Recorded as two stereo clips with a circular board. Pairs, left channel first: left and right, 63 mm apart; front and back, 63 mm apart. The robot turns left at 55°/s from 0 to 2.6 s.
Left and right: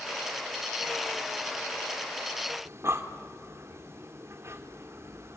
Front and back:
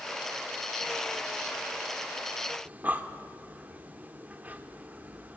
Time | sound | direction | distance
2.6 | breathing | 120° right | 1.6 m